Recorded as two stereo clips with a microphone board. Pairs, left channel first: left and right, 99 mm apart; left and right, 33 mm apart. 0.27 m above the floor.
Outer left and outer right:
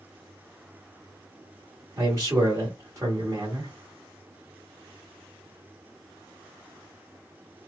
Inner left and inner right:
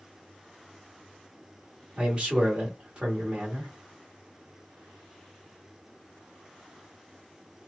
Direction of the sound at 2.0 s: 30° right (ahead or behind).